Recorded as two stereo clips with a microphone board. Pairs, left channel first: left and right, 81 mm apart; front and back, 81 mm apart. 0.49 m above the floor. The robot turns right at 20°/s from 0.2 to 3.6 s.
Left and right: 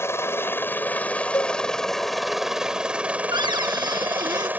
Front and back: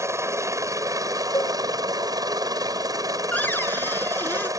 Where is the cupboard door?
70° right; by 4.5 s 65° right.